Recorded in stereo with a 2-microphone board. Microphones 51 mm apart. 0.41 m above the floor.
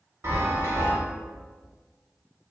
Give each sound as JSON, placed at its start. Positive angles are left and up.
{"t": 0.2, "sound": "a chime", "side_deg": -60, "distance_m": 1.0}